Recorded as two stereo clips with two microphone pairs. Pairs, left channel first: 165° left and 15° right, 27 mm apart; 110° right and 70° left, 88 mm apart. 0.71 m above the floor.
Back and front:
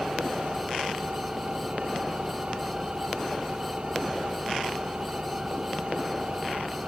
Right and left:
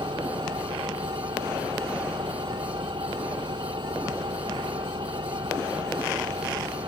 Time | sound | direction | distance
0.0 | an engine running | 40° left | ?